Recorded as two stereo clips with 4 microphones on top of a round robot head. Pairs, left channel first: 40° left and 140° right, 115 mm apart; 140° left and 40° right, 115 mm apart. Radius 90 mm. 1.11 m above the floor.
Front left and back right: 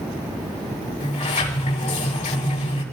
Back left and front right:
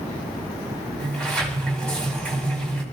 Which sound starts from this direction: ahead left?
A sliding door, at 1.0 s.